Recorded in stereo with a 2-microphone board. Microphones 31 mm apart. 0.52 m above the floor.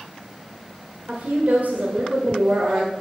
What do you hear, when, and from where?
1.1 s a woman speaking: 60° right (ahead or behind), 1.6 m